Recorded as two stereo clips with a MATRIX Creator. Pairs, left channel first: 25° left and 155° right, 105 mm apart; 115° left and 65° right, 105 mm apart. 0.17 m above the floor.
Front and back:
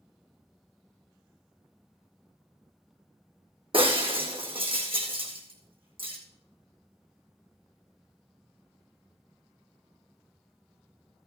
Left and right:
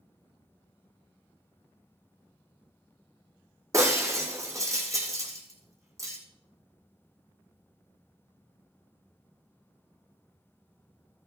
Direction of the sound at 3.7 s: 130° right.